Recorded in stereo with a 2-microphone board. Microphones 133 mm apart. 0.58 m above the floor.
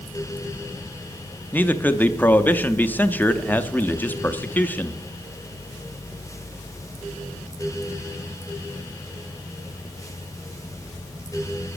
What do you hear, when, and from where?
1.5 s a man speaking: 15° left (ahead or behind), 0.6 m